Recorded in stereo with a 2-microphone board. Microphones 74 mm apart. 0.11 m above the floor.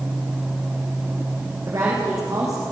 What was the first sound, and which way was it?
A woman speaking, 50° right (ahead or behind).